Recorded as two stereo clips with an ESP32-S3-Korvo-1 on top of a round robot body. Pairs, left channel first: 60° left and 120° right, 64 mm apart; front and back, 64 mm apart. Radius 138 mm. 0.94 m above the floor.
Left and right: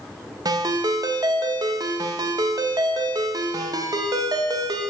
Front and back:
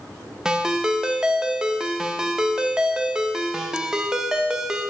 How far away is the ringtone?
About 0.7 m.